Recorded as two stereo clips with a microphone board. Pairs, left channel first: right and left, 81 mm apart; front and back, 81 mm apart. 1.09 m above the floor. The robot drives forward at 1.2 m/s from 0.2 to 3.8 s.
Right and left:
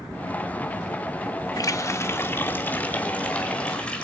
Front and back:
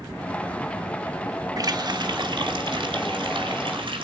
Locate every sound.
1.6 s a running tap: 135° right, 1.2 m; by 4.0 s 165° right, 3.5 m